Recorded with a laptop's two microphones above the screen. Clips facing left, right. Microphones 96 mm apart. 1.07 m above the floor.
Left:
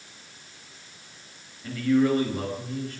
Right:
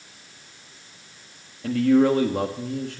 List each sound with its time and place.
1.6 s a man speaking: 80° right, 1.6 m